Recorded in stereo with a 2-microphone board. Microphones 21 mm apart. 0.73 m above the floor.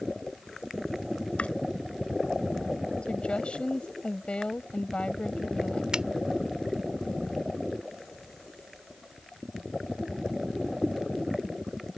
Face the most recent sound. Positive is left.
turn(degrees=-45)  # may be behind; listen again after turning